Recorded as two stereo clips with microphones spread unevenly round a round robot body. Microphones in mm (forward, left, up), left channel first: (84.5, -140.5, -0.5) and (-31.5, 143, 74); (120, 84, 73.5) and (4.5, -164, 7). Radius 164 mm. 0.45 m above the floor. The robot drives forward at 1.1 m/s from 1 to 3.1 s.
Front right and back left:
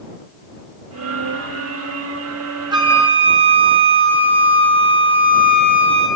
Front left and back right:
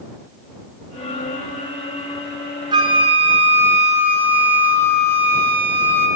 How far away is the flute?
About 0.9 m.